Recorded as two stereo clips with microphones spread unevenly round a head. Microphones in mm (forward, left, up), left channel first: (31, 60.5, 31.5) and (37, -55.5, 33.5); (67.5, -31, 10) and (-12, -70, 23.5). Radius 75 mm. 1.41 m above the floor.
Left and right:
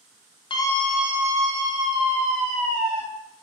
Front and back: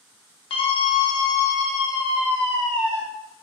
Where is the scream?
45° left, 0.5 m; by 3.0 s 45° right, 2.5 m.